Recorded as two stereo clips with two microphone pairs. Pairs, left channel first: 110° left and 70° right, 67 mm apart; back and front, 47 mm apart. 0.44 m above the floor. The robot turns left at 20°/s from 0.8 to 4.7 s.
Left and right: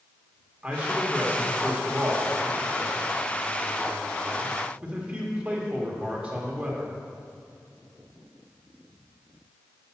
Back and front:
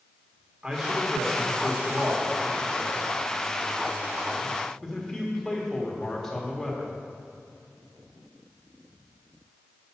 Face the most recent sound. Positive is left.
turn(degrees=-105)